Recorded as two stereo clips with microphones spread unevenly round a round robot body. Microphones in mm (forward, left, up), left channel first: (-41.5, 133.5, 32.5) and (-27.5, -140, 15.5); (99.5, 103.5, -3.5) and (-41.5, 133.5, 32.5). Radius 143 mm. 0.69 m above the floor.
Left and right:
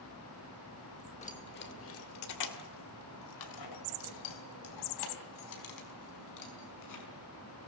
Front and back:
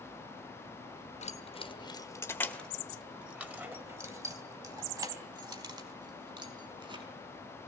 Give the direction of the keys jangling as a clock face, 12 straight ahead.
11 o'clock.